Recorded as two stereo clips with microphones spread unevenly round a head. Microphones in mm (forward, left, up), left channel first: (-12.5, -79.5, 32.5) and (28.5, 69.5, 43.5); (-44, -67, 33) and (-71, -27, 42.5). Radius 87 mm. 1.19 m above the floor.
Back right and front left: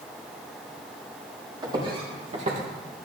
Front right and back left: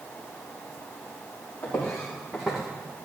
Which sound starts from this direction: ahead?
Footsteps, at 1.6 s.